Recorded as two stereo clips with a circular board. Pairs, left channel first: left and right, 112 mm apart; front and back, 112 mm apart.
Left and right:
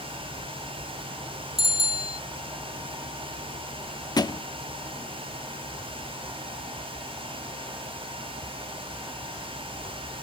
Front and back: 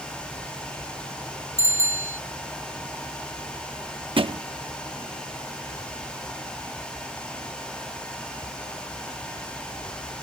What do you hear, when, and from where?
1.6 s a bicycle bell: 65° right
4.2 s a thud: 140° left